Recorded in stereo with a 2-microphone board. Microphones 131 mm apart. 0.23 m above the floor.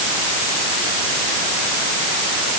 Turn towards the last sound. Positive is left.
No sound to turn to.